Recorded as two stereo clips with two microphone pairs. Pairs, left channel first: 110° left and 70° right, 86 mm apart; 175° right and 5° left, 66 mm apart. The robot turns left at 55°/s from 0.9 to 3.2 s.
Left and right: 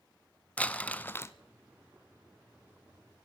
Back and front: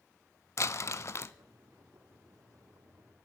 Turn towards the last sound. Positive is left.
turn(degrees=50)